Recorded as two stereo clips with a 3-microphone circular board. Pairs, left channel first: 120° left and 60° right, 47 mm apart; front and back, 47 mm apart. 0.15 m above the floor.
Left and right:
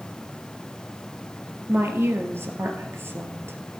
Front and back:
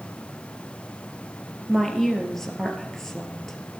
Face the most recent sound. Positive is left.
turn(degrees=-85)